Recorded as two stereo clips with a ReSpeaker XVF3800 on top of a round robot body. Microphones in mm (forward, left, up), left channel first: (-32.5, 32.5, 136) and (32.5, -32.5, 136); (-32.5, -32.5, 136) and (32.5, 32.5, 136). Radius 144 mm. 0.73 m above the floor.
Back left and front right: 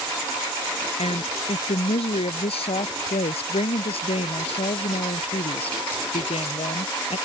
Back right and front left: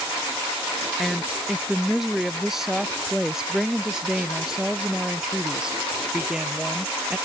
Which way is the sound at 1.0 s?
135° left.